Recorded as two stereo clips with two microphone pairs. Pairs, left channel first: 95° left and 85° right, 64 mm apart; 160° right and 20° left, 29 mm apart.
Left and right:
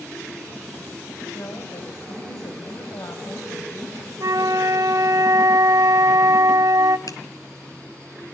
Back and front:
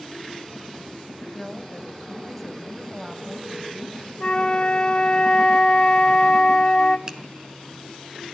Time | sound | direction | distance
1.3 | a woman speaking | 105° left | 2.5 m
4.2 | a flute | 100° right | 0.7 m
7.1 | a finger snap | 85° left | 2 m